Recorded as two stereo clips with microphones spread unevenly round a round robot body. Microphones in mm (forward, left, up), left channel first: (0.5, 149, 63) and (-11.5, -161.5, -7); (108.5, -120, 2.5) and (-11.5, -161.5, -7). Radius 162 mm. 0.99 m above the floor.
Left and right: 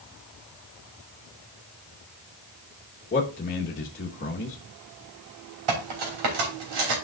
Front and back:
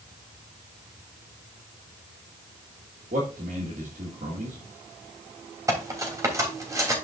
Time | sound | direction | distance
3.1 | a man speaking | 155° left | 1.2 m
5.7 | cutlery clinking | 95° right | 3 m